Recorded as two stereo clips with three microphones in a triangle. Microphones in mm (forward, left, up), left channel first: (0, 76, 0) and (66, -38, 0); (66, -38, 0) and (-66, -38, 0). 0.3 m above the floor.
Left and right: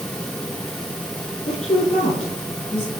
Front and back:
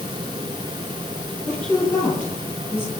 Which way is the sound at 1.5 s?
80° left.